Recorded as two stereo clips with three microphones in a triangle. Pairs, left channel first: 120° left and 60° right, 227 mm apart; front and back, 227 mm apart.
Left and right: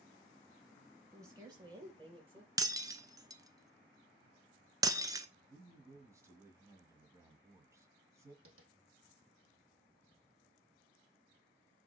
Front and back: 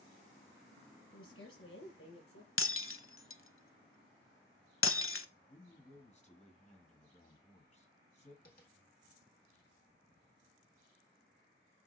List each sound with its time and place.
1.1 s a woman speaking: 20° left, 4 m; by 2.5 s 5° left, 4.5 m
2.6 s breaking glass: 10° left, 0.7 m
5.5 s a man speaking: 5° left, 1.6 m
8.4 s tapping: 45° right, 1.7 m